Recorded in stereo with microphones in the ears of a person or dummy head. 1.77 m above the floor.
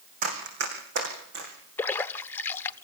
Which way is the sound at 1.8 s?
15° left (ahead or behind).